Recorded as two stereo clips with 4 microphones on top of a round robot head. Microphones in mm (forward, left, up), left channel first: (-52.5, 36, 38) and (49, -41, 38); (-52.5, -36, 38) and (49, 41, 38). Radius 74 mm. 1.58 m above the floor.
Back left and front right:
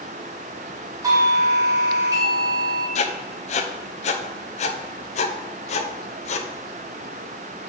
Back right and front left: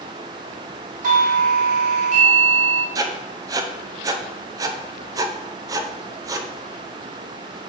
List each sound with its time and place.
1.0 s a doorbell: 25° left, 1.9 m
3.0 s writing: 105° left, 0.7 m